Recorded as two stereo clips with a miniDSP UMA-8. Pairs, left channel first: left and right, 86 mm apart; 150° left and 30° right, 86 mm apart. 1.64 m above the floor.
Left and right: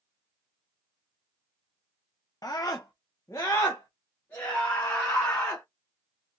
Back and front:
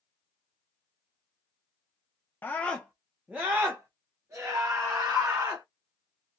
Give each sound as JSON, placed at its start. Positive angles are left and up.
{"t": 2.4, "sound": "a scream", "azimuth_deg": 100, "distance_m": 0.6}